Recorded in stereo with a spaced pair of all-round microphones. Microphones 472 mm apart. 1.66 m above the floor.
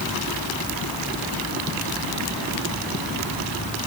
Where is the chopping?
I don't hear chopping.